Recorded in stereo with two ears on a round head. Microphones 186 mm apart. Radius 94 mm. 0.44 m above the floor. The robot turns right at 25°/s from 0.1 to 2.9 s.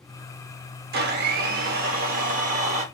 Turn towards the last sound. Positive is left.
turn(degrees=-45)